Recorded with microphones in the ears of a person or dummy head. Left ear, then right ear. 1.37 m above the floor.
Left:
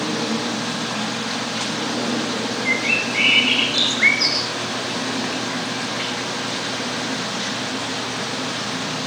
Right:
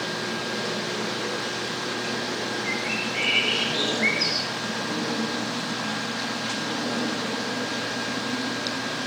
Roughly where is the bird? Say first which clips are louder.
Left 10 dB; left.